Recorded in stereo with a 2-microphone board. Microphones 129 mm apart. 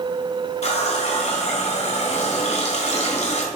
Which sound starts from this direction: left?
A running tap, at 0.6 s.